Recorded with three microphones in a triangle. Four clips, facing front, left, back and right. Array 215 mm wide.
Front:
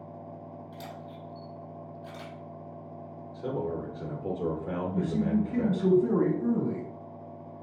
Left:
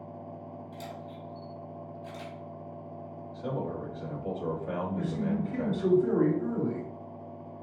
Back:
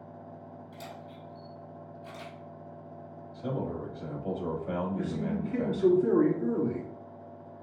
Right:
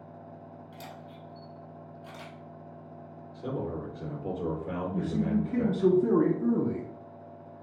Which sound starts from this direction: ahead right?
A man speaking, at 3.3 s.